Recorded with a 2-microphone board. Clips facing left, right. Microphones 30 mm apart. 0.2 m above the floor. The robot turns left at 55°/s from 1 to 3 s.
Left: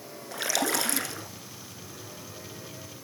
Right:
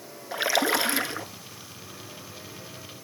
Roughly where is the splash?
Right.